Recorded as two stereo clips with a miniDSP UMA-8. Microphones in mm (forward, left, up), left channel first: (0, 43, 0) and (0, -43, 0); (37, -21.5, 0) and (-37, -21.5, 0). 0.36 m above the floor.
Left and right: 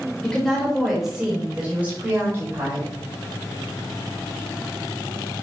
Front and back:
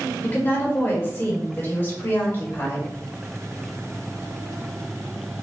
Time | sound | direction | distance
0.2 | a woman speaking | 25° left | 1.3 m